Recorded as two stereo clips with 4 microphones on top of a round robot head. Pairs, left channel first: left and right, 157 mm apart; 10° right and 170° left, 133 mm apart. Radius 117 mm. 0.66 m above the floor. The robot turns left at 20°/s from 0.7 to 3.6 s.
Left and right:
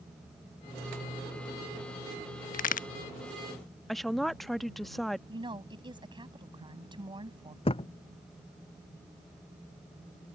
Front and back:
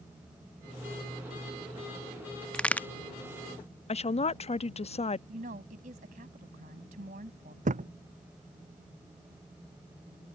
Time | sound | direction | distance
2.5 | a crack | 75° left | ?
3.9 | a woman speaking | straight ahead | ?
5.3 | a woman speaking | 150° right | ?
7.7 | a thud | 145° left | ?